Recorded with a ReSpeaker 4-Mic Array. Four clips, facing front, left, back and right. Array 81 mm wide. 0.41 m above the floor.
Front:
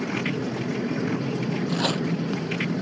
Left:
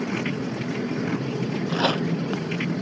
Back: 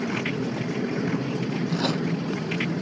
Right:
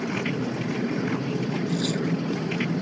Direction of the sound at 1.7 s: 85° left.